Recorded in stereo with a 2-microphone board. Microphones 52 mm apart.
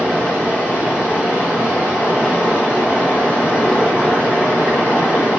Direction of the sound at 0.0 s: 20° right (ahead or behind).